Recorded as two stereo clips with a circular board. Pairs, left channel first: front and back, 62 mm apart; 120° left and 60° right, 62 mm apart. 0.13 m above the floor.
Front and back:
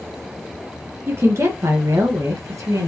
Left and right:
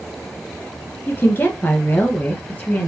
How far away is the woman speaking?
About 1.5 m.